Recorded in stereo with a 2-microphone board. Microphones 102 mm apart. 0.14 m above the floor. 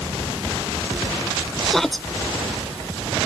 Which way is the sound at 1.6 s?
5° left (ahead or behind).